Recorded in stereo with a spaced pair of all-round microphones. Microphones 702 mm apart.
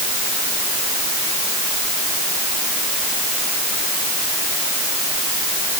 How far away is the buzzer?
I don't hear a buzzer.